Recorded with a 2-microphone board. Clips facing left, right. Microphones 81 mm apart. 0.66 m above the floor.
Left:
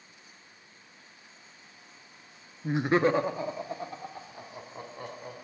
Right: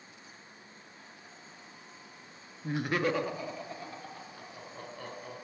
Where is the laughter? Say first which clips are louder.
Left 6 dB; 15° left (ahead or behind), 0.5 m; by 5.3 s 25° left (ahead or behind), 2.5 m.